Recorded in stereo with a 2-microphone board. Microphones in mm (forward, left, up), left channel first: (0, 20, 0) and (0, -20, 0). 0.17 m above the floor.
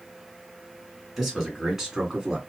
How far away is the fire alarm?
I don't hear a fire alarm.